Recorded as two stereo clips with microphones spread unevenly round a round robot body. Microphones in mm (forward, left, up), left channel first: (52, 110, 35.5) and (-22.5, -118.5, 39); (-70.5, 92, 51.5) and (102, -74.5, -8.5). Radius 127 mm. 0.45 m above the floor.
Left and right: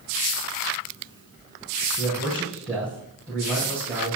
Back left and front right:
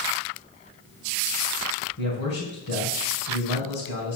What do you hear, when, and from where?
2.0 s a man speaking: 160° left, 3 m